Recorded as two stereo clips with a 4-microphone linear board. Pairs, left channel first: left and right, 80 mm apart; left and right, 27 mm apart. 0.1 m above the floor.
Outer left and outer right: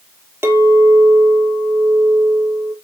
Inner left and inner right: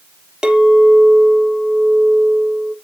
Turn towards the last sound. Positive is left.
turn(degrees=-35)  # may be behind; listen again after turning